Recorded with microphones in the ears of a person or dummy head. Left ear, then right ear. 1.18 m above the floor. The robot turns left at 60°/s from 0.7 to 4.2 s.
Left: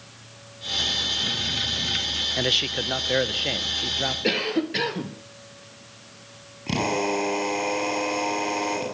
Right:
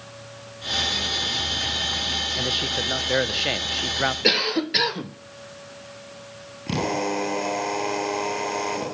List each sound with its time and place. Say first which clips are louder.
2.4 s a man speaking: left 1 dB; 35° left, 0.9 m; by 4.1 s 75° right, 0.9 m
4.2 s a cough: right 4 dB; 40° right (ahead or behind), 0.6 m
6.7 s a drill: left 1 dB; centre (ahead or behind), 8.5 m